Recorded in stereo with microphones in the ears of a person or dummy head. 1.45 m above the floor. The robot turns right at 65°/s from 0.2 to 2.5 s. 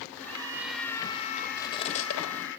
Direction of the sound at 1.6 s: 20° left (ahead or behind).